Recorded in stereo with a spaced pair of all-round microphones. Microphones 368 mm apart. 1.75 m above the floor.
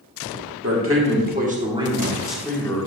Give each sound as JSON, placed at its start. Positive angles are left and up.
{"t": 0.6, "sound": "a man speaking", "side_deg": -40, "distance_m": 1.5}